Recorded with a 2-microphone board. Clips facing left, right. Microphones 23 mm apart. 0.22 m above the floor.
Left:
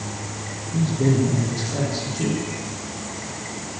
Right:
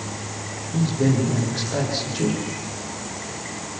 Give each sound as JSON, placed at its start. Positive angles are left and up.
{"t": 0.7, "sound": "a man speaking", "side_deg": -15, "distance_m": 9.0}